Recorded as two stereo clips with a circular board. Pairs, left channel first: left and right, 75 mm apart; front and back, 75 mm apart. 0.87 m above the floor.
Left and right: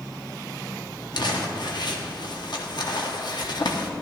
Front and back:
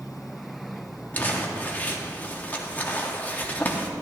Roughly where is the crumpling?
Left.